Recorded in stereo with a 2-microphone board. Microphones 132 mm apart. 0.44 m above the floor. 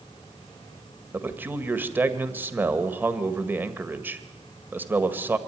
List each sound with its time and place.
1.1 s a man speaking: 15° right (ahead or behind), 1.7 m